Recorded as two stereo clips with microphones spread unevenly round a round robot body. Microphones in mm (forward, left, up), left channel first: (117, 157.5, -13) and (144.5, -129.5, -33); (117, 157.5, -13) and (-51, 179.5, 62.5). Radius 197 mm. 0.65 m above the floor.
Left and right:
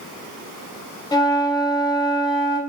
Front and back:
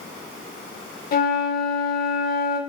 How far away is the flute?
About 0.5 m.